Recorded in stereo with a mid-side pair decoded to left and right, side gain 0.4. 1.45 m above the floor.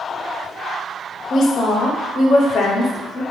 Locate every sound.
1.3 s a woman speaking: 70° left, 0.6 m